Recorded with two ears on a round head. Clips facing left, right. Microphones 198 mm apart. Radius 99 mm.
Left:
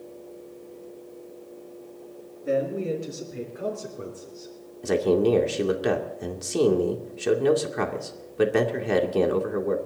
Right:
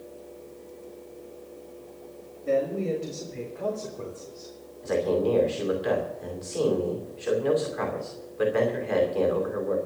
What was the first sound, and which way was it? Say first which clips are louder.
A man speaking: even; 20° left (ahead or behind).